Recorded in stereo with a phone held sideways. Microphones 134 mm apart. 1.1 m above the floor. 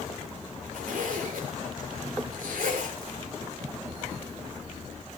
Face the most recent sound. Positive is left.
turn(degrees=-85)